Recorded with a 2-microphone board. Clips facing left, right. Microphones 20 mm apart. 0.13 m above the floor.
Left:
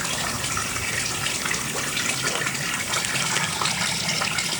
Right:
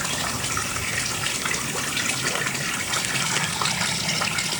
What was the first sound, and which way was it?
Only background noise.